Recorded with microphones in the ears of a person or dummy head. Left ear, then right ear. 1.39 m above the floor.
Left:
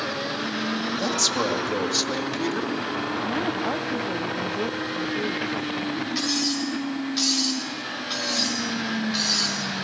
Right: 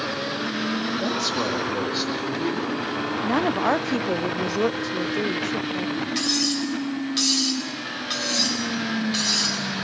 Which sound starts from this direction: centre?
Cutlery clinking, at 6.2 s.